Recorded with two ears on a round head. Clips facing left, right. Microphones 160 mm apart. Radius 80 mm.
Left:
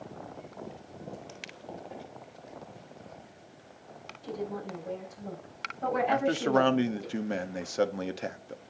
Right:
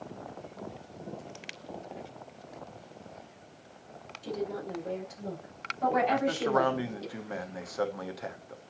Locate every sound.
4.2 s a woman speaking: 85° right, 5 m; by 7.1 s 75° right (ahead or behind), 6 m
6.1 s a man speaking: 30° left (ahead or behind), 0.7 m